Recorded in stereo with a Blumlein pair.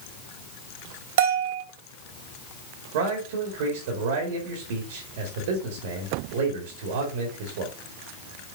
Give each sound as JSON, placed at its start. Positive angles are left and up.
{"t": 1.2, "sound": "a bell", "azimuth_deg": -55, "distance_m": 2.0}
{"t": 2.9, "sound": "a man speaking", "azimuth_deg": -55, "distance_m": 2.0}